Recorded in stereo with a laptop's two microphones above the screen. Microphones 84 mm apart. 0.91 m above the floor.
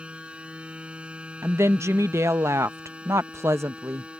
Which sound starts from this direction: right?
A woman speaking, at 1.4 s.